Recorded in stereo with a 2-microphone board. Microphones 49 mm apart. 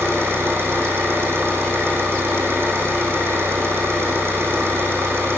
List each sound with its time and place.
0.0 s an engine running: 55° right (ahead or behind), 5.5 m